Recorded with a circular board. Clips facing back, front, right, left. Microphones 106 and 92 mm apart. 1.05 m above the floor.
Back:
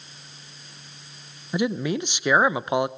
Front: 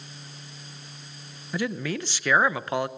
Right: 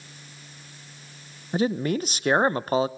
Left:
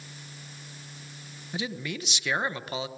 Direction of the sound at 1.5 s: 115° right.